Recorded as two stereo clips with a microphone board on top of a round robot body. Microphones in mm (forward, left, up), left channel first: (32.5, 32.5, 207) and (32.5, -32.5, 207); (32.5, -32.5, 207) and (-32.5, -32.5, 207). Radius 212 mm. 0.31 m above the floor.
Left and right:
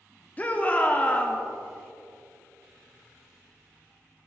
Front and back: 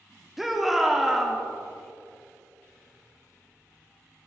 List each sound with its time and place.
0.4 s a shout: 100° left, 1.5 m